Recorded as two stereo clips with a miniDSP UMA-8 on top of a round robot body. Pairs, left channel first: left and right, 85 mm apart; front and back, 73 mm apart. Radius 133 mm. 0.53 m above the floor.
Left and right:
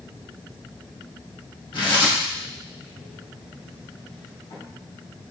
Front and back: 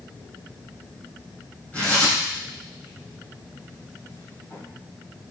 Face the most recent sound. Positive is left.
turn(degrees=70)